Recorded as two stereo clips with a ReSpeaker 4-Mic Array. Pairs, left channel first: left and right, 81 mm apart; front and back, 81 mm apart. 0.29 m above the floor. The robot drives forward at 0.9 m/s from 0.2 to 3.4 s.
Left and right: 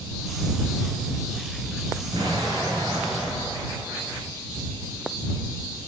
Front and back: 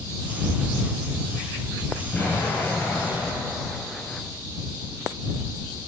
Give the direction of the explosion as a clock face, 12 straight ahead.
2 o'clock.